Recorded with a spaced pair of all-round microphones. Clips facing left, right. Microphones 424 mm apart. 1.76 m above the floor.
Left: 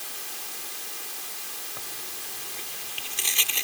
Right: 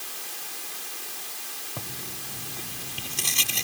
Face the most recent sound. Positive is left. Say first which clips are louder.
# right 8 dB
turn(degrees=-60)  # may be behind; listen again after turning